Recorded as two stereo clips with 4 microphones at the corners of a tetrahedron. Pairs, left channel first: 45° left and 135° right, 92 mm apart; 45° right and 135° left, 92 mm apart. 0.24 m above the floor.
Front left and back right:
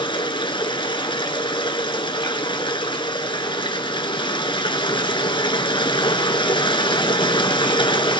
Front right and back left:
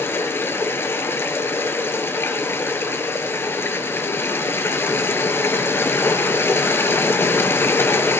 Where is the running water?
20° left, 1.1 m.